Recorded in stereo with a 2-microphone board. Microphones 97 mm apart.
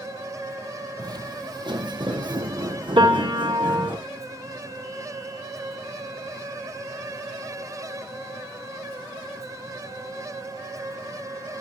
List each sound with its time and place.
1.0 s footsteps: 45° right (ahead or behind), 1.1 m; by 4.0 s 55° right (ahead or behind), 2.5 m
3.0 s a piano: 65° right (ahead or behind), 2.5 m